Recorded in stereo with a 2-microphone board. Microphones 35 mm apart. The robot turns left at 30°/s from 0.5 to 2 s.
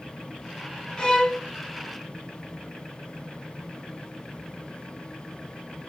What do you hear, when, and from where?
1.0 s a violin: 25° left (ahead or behind), 0.9 m; by 1.4 s 15° left (ahead or behind), 0.9 m